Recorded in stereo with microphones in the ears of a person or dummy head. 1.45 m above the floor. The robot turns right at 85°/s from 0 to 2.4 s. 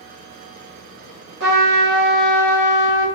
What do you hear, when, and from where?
1.4 s a trumpet: 70° right, 0.9 m; by 3.0 s 15° left, 0.9 m